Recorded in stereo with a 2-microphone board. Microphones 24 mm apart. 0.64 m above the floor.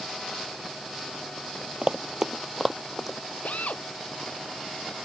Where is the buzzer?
No buzzer in this recording.